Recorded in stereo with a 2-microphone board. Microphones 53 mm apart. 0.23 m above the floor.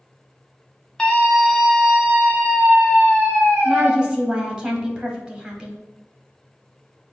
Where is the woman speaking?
15° right (ahead or behind), 0.9 m.